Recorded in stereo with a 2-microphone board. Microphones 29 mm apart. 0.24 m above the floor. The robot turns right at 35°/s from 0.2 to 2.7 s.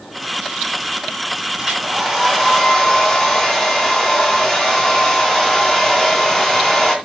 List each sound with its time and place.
1.6 s a hair dryer: 30° right, 3 m; by 7.0 s 10° left, 3 m